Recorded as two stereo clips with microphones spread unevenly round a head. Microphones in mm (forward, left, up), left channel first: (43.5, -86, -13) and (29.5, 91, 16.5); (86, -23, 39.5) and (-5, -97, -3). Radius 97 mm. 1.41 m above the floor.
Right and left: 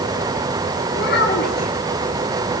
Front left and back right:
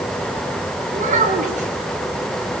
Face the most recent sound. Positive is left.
turn(degrees=-130)